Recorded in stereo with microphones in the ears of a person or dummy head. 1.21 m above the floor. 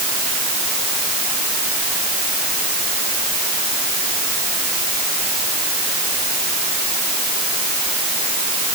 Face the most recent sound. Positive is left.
No sound to turn to.